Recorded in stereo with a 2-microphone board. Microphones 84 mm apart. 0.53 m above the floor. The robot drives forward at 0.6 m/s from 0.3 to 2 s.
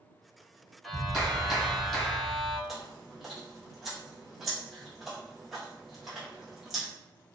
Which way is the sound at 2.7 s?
Centre (ahead or behind).